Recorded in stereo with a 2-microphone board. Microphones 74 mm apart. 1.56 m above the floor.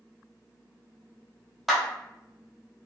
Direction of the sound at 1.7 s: 5° right (ahead or behind).